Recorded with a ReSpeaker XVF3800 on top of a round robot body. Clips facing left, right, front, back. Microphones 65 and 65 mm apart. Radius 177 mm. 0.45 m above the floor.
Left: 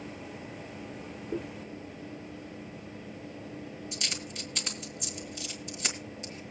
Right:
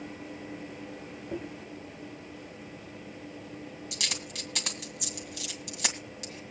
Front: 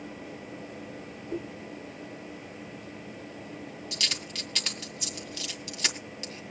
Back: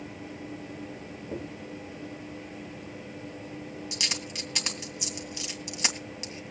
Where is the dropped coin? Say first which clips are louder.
Left 2 dB, front 2 dB; 110° right, 2.5 m.